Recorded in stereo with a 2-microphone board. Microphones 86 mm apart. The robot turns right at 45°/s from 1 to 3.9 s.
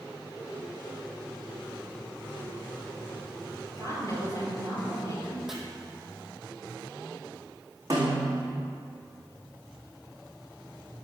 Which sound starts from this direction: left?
A woman speaking, at 3.8 s.